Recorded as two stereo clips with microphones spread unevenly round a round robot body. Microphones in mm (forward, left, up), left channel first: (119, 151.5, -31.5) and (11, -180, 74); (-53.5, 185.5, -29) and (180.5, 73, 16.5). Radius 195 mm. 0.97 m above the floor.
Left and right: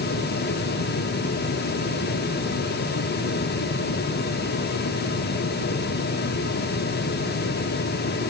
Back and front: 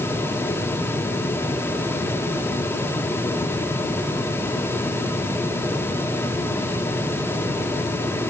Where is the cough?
I don't hear a cough.